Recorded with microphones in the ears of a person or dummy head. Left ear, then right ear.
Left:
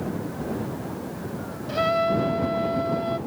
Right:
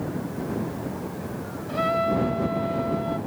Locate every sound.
1.7 s a trumpet: 15° left (ahead or behind)